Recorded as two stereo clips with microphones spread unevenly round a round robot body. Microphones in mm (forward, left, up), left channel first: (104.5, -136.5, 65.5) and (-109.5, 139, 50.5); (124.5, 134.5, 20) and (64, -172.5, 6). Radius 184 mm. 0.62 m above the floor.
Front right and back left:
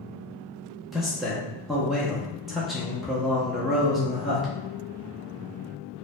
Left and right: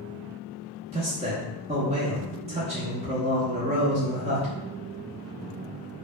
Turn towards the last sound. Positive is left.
turn(degrees=-150)